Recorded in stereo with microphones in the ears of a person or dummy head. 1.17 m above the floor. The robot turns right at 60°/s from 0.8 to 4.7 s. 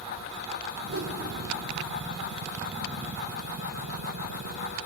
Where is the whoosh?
80° right, 4.5 m; by 1.2 s 60° right (ahead or behind), 4.5 m.